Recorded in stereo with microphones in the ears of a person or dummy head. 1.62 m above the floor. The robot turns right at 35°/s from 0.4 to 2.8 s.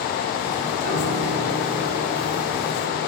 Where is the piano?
55° right, 5.5 m; by 3.1 s 15° left, 5.5 m.